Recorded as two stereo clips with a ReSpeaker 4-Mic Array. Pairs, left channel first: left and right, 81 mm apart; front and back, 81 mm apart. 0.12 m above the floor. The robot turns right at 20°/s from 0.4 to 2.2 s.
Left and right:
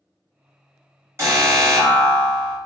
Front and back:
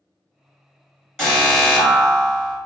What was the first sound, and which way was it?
An alarm, 85° right.